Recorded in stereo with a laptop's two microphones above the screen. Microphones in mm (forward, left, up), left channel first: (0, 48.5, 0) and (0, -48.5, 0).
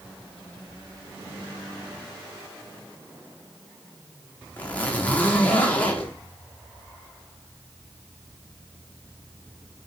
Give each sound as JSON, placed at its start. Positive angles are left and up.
{"t": 4.6, "sound": "a zipper", "side_deg": 15, "distance_m": 0.8}